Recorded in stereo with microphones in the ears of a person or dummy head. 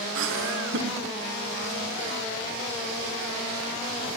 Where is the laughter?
70° right (ahead or behind), 1.4 m.